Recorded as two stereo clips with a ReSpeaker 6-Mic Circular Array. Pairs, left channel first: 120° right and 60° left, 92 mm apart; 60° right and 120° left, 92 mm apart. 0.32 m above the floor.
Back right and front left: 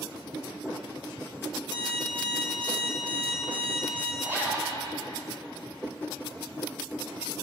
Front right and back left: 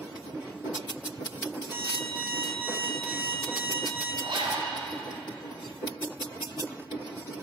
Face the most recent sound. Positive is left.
turn(degrees=125)